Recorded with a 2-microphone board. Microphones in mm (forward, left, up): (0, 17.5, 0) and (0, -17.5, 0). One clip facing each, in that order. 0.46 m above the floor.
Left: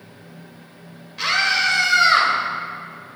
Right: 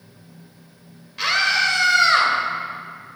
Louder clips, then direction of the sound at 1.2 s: Even; centre (ahead or behind).